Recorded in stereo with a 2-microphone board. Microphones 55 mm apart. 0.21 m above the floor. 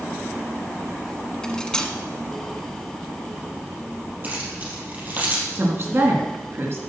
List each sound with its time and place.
1.4 s cutlery clinking: 15° left (ahead or behind), 1.2 m
4.2 s keys jangling: 35° right (ahead or behind), 3.5 m
5.5 s a woman speaking: 50° right (ahead or behind), 2.5 m